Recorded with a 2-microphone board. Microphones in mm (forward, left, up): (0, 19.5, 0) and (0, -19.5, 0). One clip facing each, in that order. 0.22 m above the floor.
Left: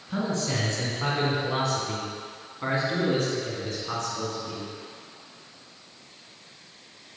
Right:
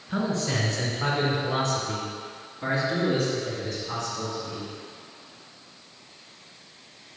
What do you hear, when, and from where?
0.1 s a man speaking: 15° right (ahead or behind), 2 m; by 4.7 s 60° left (ahead or behind), 2.5 m